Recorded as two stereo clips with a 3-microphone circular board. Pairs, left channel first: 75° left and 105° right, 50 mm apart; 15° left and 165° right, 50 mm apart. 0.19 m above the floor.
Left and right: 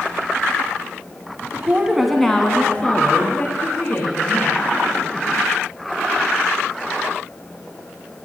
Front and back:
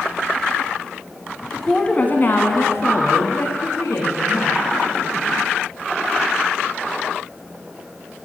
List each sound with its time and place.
1.5 s a woman speaking: 70° right, 1.3 m; by 4.6 s 30° left, 4.5 m